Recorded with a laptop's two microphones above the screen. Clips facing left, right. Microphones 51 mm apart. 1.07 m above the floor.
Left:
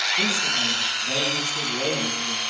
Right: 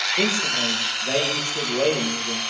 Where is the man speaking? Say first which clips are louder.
Right 1 dB; 45° right (ahead or behind), 4 m.